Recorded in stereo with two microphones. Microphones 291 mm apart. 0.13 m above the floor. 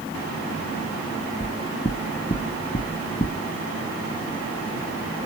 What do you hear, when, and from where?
1.4 s knocking: 25° left (ahead or behind), 1.0 m